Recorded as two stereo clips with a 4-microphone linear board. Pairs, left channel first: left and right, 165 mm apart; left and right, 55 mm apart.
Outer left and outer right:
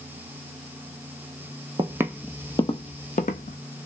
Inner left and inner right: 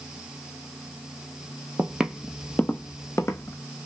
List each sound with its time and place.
1.8 s footsteps: 30° right (ahead or behind), 0.5 m; by 3.6 s 60° left (ahead or behind), 0.9 m